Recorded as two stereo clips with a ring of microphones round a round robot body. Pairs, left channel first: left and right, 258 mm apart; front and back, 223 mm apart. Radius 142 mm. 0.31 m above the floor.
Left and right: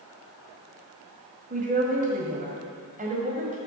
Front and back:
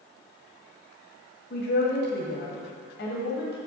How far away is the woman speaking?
About 1.8 m.